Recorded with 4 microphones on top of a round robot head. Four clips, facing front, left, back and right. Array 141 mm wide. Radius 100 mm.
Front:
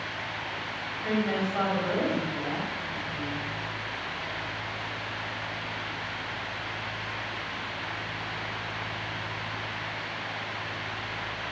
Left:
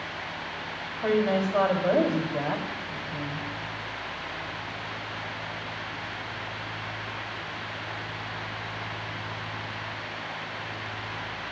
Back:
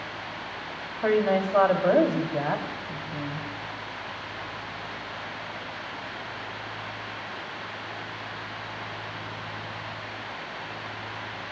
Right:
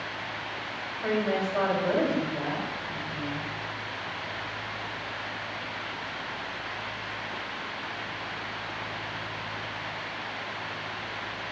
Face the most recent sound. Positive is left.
turn(degrees=155)